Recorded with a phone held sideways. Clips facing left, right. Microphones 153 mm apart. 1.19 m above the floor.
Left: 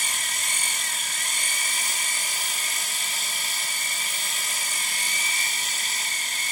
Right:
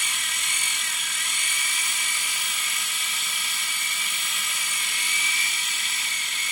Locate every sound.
0.0 s a machine running: 45° left (ahead or behind)